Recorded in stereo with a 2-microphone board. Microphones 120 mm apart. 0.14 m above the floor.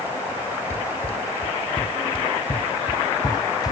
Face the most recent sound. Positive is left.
turn(degrees=30)  # may be behind; listen again after turning